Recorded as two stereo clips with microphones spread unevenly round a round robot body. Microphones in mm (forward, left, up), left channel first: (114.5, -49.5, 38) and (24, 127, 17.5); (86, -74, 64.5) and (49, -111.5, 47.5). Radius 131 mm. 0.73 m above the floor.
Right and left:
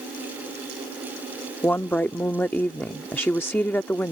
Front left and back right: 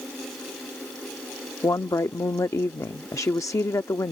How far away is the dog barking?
No dog barking in this recording.